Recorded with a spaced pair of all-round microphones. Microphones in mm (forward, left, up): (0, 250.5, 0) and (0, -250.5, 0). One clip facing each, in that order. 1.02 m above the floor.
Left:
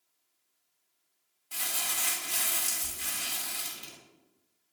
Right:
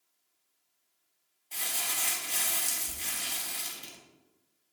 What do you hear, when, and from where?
1.5 s crumpling: 30° left (ahead or behind), 0.6 m